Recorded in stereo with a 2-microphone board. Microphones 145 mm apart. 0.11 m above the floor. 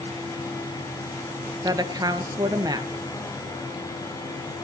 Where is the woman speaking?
25° right (ahead or behind), 1.7 m.